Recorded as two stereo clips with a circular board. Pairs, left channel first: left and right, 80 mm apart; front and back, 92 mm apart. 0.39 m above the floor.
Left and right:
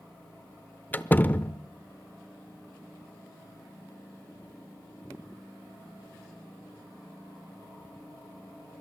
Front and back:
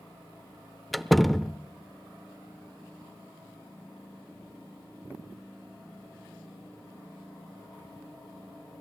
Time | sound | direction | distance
0.9 | a door slam | 90° left | 0.8 m